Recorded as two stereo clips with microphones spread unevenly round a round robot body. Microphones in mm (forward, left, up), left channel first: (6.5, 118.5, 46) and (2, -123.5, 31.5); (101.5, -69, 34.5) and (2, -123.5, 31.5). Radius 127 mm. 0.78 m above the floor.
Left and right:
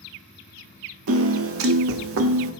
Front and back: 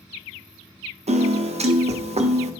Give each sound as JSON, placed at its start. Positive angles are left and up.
{"t": 1.1, "sound": "a piano", "azimuth_deg": -125, "distance_m": 0.8}